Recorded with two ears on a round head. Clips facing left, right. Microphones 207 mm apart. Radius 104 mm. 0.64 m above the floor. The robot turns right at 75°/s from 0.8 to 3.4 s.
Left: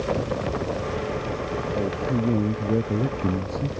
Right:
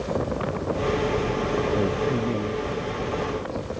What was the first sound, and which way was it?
A man speaking, 15° right.